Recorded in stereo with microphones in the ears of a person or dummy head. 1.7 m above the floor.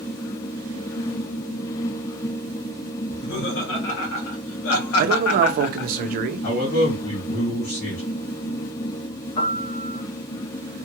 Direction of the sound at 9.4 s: 50° left (ahead or behind).